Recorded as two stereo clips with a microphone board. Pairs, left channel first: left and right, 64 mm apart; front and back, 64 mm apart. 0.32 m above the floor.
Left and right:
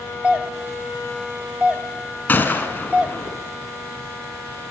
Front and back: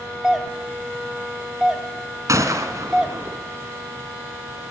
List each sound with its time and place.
0.2 s a doorbell: 110° right, 1.7 m
2.3 s a gunshot: 150° left, 2.5 m